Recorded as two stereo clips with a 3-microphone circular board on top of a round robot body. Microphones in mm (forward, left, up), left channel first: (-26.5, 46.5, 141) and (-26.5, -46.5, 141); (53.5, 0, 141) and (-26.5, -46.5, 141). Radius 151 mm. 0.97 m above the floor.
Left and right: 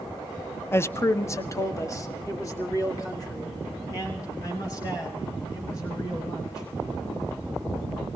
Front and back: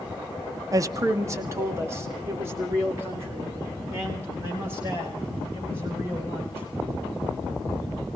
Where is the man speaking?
155° left, 0.5 m; by 6.7 s 145° left, 5.5 m.